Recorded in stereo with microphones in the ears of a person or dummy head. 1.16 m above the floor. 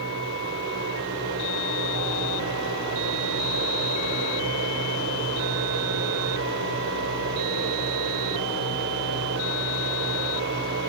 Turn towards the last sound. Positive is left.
turn(degrees=-65)  # may be behind; listen again after turning